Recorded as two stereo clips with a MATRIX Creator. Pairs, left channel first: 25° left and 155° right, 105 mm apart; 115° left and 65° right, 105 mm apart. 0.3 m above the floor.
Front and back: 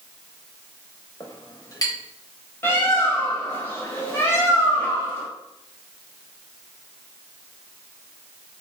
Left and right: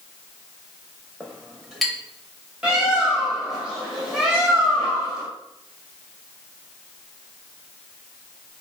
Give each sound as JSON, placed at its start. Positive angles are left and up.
{"t": 1.2, "sound": "a clink", "azimuth_deg": 20, "distance_m": 0.6}
{"t": 2.6, "sound": "a bird", "azimuth_deg": 5, "distance_m": 0.7}